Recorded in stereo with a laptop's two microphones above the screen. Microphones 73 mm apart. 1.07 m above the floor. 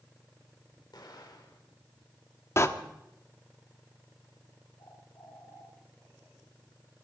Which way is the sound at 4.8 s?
80° left.